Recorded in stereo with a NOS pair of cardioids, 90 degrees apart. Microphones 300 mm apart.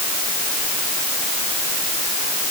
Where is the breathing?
No breathing in this recording.